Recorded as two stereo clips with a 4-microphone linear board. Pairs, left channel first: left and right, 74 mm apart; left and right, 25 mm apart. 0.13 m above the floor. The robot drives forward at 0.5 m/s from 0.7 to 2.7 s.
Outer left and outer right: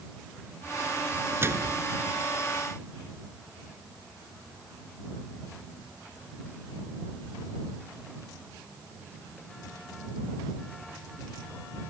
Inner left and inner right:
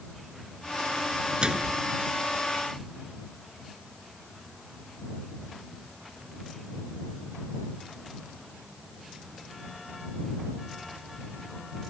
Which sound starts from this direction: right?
A microwave, at 1.4 s.